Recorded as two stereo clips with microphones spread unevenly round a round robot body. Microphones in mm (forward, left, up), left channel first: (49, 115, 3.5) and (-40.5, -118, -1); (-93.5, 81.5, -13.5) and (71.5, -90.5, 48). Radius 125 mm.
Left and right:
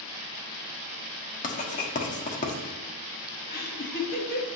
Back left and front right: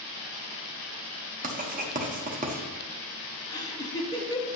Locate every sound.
1.4 s writing: 15° left, 1.2 m
3.5 s laughter: 90° left, 1.4 m